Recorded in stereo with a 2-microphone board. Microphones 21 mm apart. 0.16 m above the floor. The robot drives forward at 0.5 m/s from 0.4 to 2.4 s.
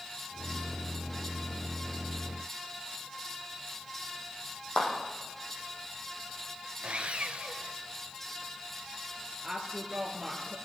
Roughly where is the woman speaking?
Centre.